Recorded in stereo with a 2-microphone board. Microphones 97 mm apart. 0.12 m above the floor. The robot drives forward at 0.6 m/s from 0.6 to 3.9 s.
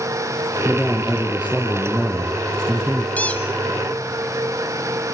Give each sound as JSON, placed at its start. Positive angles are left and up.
{"t": 0.7, "sound": "a man speaking", "side_deg": -10, "distance_m": 3.5}
{"t": 3.2, "sound": "a squeak", "side_deg": 15, "distance_m": 1.7}